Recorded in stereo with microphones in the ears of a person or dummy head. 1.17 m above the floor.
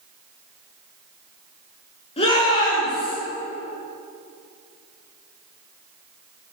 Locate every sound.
2.2 s a shout: 30° left (ahead or behind), 2.5 m; by 3.2 s 25° left (ahead or behind), 3.5 m